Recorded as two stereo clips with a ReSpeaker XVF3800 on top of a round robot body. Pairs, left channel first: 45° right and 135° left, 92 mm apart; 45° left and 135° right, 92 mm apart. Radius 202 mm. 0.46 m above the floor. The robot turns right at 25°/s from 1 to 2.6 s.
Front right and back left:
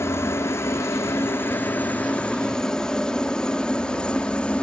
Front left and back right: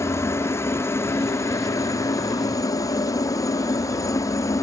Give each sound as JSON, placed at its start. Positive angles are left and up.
{"t": 0.0, "sound": "a helicopter", "azimuth_deg": 0}